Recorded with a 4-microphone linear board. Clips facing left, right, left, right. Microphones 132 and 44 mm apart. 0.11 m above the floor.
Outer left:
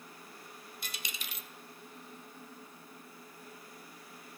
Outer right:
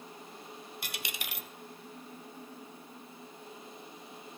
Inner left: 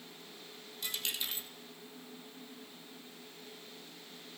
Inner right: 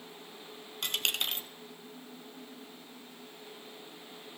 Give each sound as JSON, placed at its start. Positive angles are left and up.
{"t": 0.8, "sound": "a dropped coin", "side_deg": -70, "distance_m": 0.6}